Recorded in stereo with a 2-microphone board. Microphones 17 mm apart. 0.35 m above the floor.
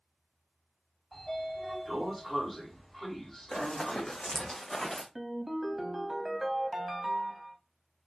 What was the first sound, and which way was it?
A sliding door, 10° left (ahead or behind).